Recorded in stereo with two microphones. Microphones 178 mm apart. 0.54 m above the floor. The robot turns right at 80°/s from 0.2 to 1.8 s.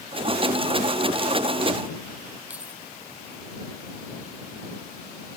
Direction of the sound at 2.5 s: 10° right (ahead or behind).